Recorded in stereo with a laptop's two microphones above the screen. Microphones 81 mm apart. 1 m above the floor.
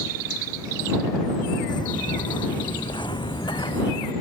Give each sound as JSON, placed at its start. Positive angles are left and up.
{"t": 1.7, "sound": "footsteps", "side_deg": 65}